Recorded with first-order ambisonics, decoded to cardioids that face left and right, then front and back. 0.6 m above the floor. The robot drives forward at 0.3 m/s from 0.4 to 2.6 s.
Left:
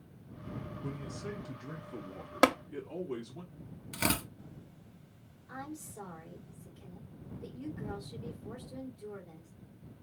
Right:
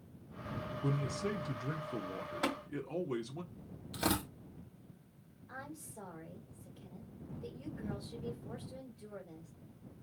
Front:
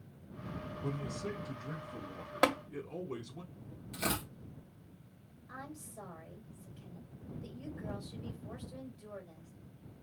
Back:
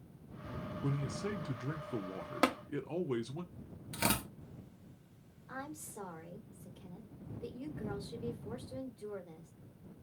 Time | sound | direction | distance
0.8 | a man speaking | 115° right | 0.5 m
2.4 | tapping | 85° left | 0.5 m
3.9 | tearing paper | 125° left | 2.5 m
5.5 | a woman speaking | 170° left | 2 m